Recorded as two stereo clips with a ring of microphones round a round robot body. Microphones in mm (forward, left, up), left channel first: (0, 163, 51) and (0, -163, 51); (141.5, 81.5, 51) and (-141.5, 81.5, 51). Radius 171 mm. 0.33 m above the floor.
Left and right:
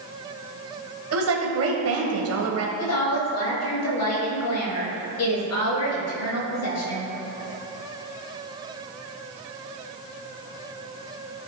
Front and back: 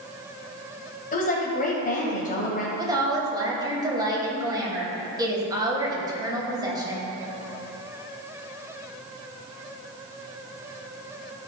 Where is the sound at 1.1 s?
55° right, 1.7 m.